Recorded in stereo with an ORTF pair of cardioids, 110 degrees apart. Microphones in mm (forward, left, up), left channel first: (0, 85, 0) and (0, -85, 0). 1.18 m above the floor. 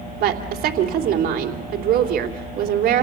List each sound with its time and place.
0.2 s a woman speaking: 60° right, 3 m